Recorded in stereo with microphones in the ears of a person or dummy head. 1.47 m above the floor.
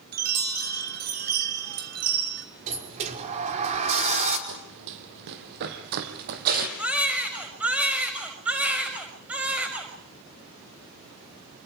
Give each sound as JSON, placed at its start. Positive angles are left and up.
{"t": 0.1, "sound": "a chime", "side_deg": -50, "distance_m": 2.5}
{"t": 2.7, "sound": "a sliding door", "side_deg": -40, "distance_m": 5.0}
{"t": 4.5, "sound": "running footsteps", "side_deg": -65, "distance_m": 4.0}
{"t": 6.8, "sound": "a baby crying", "side_deg": -5, "distance_m": 5.5}